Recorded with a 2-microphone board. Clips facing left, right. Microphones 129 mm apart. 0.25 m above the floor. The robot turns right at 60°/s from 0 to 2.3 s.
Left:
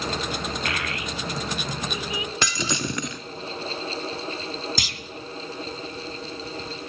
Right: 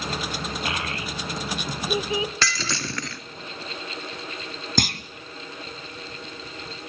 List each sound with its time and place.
0.7 s a child speaking: 25° right (ahead or behind), 0.7 m; by 2.3 s 30° right (ahead or behind), 0.7 m
2.4 s breaking glass: 20° left (ahead or behind), 1.2 m
4.8 s a clunk: 55° right (ahead or behind), 1.1 m